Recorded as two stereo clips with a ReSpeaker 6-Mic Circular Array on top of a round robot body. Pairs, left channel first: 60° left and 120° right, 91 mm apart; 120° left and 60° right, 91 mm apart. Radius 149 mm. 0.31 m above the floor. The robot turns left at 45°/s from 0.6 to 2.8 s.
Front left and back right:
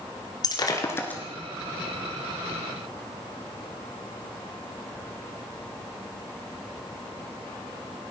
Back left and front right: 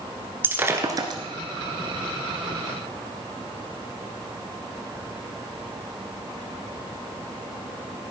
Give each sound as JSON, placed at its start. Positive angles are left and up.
{"t": 0.4, "sound": "breaking glass", "azimuth_deg": 10, "distance_m": 1.7}